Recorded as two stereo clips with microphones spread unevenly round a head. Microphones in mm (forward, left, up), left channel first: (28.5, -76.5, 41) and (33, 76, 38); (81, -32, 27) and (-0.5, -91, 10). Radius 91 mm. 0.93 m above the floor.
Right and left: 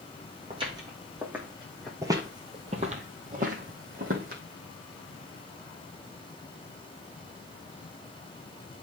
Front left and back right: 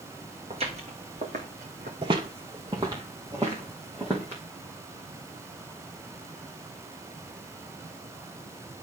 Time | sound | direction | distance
0.5 | footsteps | 150° left | 1.9 m
2.0 | footsteps | 160° left | 1.2 m